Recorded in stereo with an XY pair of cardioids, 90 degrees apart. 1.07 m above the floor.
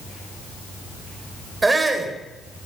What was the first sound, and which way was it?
A shout, 25° right.